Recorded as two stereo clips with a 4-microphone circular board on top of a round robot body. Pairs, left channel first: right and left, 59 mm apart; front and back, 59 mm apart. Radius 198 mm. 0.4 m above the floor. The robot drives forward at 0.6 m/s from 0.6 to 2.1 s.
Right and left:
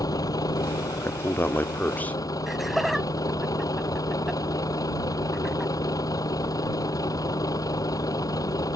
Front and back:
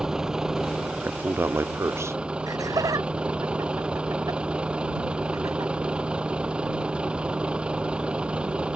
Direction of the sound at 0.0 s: 100° right.